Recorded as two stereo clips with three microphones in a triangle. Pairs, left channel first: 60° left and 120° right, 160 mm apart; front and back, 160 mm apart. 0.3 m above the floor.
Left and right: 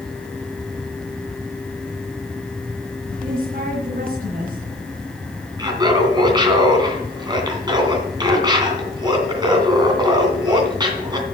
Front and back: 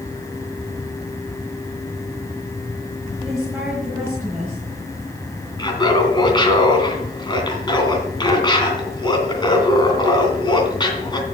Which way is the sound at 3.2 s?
95° right.